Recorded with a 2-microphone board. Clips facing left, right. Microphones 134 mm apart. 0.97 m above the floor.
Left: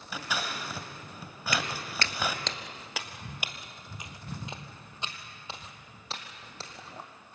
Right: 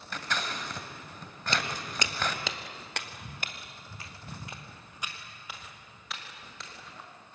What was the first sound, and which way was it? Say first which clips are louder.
Scissors: even; 5° left (ahead or behind).